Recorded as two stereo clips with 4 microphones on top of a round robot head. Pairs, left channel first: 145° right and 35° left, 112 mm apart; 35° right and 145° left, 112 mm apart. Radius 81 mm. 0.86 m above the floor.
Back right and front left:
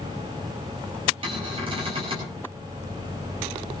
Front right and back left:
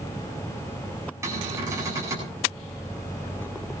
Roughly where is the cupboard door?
Left.